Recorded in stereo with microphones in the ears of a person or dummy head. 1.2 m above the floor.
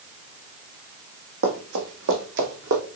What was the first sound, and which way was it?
Running footsteps, 70° right (ahead or behind).